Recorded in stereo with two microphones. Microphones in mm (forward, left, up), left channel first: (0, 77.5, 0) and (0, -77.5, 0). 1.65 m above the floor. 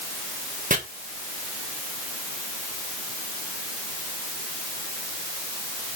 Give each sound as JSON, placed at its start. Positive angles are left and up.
{"t": 0.7, "sound": "chopping", "side_deg": -55, "distance_m": 1.6}